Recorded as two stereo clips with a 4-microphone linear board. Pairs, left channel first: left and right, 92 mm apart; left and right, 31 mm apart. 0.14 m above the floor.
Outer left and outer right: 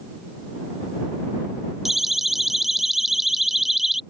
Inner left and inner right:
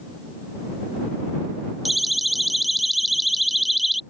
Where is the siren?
5° right (ahead or behind).